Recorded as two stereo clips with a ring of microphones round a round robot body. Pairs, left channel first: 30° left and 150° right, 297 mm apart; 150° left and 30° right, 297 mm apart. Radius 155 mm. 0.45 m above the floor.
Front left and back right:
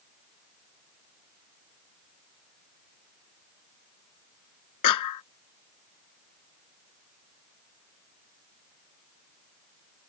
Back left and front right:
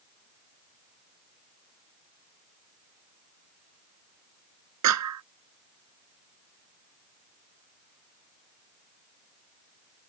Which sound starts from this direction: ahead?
A clap, at 4.8 s.